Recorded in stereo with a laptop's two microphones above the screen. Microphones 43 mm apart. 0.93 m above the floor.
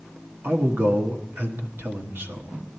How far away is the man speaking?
About 1.3 m.